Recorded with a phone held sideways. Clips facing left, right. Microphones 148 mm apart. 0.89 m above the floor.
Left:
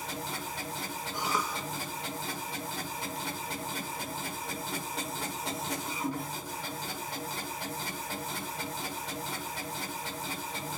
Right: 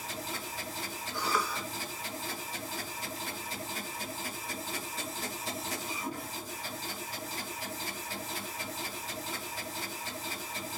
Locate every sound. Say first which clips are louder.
0.0 s a machine running: left 2 dB; 85° left, 5.5 m
1.1 s a cough: right 1 dB; 20° left (ahead or behind), 1.6 m